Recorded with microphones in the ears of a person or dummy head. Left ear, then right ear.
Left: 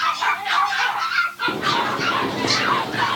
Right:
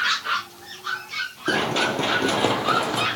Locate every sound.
1.5 s running footsteps: 55° right (ahead or behind), 3 m; by 3.1 s 35° right (ahead or behind), 4 m